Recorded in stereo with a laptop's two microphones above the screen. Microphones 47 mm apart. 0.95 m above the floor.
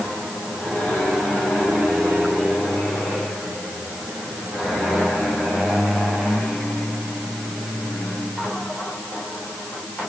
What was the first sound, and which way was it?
Only background noise.